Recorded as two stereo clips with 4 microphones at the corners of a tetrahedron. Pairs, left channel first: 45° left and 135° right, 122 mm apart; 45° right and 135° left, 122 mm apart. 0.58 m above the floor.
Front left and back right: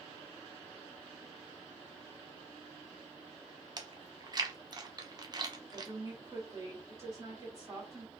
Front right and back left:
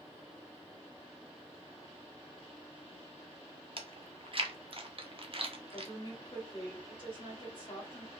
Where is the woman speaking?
75° right, 1.9 m.